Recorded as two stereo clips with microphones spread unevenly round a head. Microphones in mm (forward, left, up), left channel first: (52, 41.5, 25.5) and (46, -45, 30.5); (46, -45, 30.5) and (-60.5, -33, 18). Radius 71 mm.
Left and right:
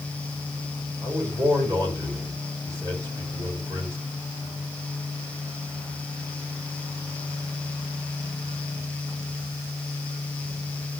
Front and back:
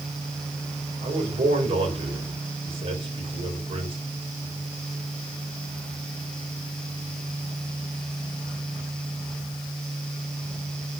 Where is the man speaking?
155° right, 4 m.